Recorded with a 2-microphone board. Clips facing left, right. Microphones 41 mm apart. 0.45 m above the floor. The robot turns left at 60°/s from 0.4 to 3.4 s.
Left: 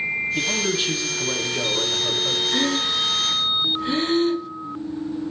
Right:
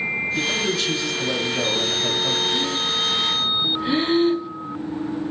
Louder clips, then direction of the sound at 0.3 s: Right 1 dB; 35° left.